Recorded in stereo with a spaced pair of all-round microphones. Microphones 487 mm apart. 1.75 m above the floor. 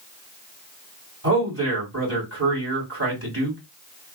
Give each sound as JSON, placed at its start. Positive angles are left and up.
{"t": 1.2, "sound": "a man speaking", "side_deg": -30, "distance_m": 2.0}